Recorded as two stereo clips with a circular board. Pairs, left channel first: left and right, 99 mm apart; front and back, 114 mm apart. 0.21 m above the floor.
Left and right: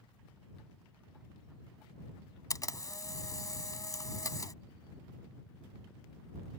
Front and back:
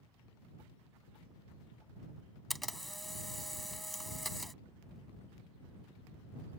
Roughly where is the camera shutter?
Left.